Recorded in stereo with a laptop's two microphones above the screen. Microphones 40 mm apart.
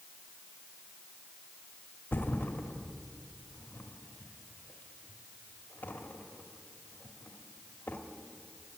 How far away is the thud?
About 1.1 m.